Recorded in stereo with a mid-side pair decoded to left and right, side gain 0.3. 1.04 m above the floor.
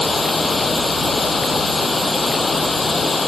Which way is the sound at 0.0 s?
30° left.